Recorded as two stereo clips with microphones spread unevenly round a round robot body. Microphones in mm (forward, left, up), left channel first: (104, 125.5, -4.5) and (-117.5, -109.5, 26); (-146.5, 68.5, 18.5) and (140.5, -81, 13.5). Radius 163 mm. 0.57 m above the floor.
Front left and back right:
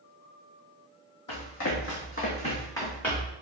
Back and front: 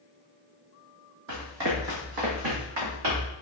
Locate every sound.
1.3 s running footsteps: 15° left, 1.8 m; by 3.3 s 45° right, 3 m